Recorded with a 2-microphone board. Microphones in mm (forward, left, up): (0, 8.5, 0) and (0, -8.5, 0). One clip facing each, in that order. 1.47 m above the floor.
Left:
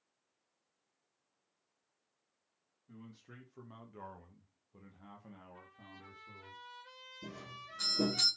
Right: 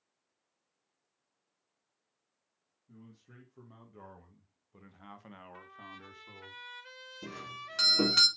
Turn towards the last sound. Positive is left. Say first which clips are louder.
# right 6 dB
turn(degrees=-75)  # may be behind; listen again after turning